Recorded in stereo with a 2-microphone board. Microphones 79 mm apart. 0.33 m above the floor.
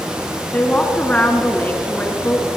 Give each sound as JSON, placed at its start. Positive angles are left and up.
{"t": 0.5, "sound": "a woman speaking", "side_deg": 20, "distance_m": 3.5}